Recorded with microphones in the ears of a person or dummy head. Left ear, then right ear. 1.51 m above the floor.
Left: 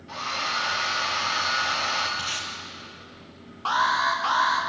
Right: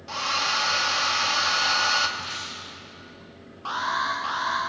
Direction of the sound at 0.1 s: 55° right (ahead or behind).